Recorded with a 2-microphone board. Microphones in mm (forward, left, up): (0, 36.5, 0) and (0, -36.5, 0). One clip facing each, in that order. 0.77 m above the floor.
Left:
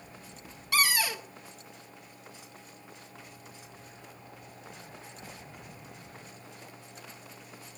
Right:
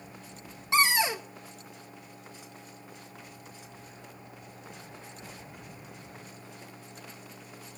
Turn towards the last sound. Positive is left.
turn(degrees=-25)  # may be behind; listen again after turning